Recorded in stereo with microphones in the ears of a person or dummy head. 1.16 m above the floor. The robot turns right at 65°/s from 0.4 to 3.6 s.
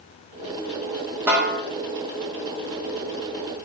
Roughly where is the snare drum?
Centre.